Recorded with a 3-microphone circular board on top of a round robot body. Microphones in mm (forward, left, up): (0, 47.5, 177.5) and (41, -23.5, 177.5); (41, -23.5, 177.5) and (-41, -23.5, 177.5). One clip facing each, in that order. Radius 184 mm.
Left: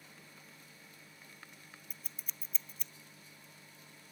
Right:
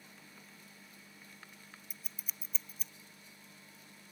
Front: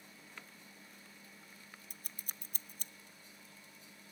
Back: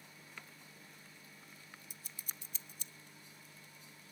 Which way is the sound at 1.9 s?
25° left.